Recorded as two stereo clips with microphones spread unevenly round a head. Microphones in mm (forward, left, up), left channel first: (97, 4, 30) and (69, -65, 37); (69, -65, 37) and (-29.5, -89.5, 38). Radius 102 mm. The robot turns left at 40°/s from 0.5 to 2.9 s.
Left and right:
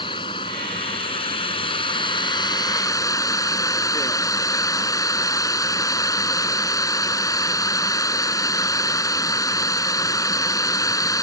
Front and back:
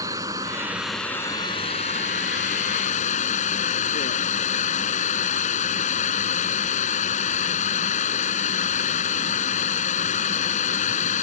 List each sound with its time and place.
0.0 s running water: 120° left; by 11.2 s 25° left